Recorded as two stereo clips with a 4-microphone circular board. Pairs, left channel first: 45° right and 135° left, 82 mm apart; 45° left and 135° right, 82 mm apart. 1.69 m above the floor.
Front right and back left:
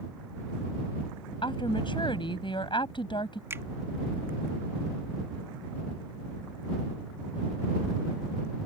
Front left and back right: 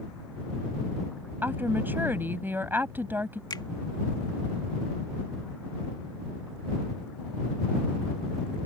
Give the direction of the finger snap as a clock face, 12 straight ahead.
9 o'clock.